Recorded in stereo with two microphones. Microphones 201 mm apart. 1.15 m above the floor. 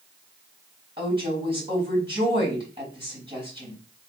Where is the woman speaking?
25° right (ahead or behind), 4 m.